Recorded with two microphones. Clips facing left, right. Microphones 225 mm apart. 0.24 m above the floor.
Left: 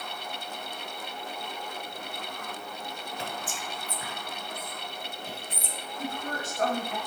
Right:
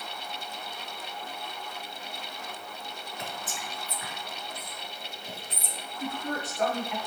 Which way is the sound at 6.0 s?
50° left (ahead or behind).